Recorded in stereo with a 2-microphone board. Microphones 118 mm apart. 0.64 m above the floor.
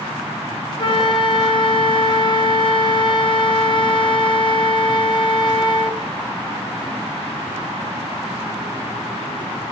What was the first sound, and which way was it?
A flute, 40° left (ahead or behind).